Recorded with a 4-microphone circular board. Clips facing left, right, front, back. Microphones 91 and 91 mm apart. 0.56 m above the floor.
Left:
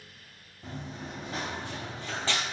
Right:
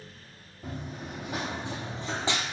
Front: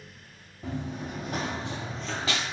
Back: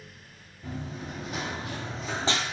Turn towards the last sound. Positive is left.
turn(degrees=-155)